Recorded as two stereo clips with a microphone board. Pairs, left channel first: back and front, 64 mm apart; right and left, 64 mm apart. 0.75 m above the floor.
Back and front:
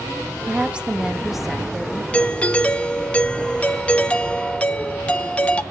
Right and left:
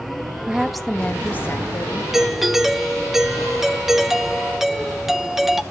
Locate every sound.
0.5 s a woman speaking: 40° left, 1.1 m; by 2.0 s 95° right, 1.6 m
2.1 s a doorbell: 170° left, 0.8 m